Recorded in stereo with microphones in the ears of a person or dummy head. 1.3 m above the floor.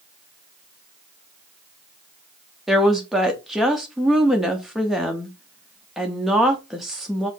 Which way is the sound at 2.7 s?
Centre (ahead or behind).